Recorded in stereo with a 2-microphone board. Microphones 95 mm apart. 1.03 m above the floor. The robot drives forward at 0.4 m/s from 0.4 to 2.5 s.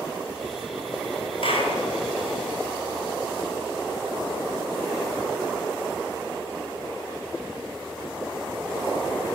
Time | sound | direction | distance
1.4 | a clap | 70° left (ahead or behind) | 6 m